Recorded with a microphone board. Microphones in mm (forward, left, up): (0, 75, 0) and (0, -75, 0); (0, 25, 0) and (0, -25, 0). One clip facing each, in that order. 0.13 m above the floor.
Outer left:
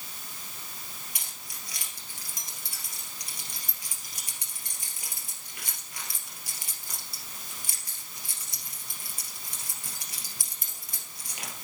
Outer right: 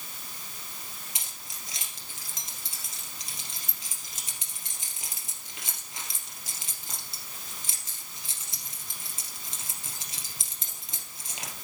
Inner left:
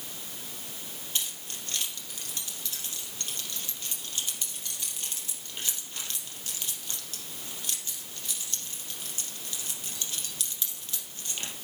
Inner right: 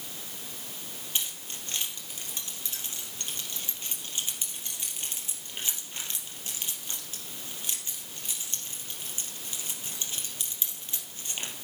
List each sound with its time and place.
1.1 s keys jangling: 25° right (ahead or behind), 3 m